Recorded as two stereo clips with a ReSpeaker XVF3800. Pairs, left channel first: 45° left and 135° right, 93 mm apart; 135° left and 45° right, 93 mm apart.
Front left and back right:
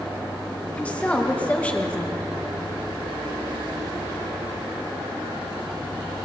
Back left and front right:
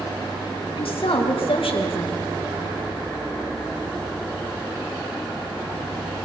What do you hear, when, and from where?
0.8 s a woman speaking: 120° left, 2.5 m